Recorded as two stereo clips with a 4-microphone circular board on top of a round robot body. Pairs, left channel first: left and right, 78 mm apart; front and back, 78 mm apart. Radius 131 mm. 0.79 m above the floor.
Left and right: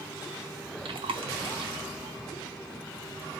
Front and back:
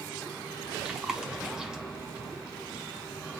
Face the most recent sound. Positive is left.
turn(degrees=-95)